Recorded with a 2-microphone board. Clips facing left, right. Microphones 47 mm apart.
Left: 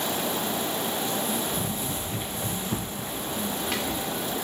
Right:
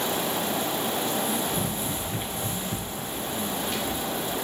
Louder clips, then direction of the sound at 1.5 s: Right 1 dB; 35° right (ahead or behind).